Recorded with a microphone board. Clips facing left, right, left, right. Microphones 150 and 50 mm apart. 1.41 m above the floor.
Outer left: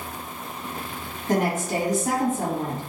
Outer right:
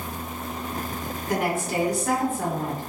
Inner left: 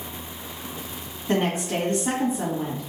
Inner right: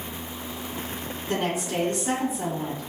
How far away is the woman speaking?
About 2.0 m.